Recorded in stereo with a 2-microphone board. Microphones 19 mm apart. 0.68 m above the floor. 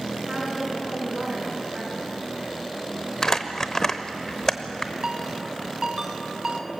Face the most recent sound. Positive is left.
turn(degrees=-35)  # may be behind; listen again after turning